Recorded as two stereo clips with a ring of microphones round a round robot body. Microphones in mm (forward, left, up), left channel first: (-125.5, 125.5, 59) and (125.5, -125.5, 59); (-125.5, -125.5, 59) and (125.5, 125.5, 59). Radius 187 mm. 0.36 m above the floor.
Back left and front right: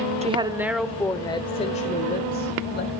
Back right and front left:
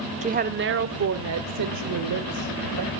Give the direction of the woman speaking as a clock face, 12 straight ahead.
12 o'clock.